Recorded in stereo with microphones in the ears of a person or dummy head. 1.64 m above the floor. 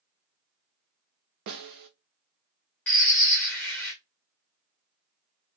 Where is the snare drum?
45° right (ahead or behind), 0.6 m.